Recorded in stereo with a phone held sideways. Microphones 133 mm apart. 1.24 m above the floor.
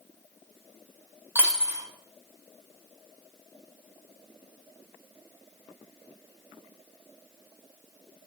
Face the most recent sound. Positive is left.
turn(degrees=-20)  # may be behind; listen again after turning